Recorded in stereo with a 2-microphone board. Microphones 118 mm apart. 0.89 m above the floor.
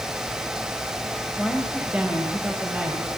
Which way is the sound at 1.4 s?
10° right (ahead or behind).